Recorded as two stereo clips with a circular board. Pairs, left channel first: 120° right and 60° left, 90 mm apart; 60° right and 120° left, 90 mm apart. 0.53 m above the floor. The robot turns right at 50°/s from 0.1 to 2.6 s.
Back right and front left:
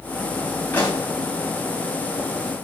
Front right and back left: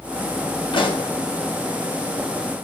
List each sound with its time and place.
0.7 s a pop: 50° right, 4 m; by 1.1 s 30° right, 4 m